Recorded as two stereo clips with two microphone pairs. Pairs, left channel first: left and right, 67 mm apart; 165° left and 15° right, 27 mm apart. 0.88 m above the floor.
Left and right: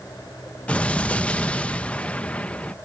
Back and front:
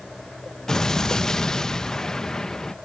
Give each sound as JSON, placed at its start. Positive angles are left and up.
{"t": 0.7, "sound": "an explosion", "azimuth_deg": 140}